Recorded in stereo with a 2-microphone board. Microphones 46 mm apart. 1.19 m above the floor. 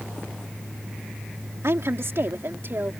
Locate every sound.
1.6 s a woman speaking: 70° right (ahead or behind); by 2.9 s 50° right (ahead or behind)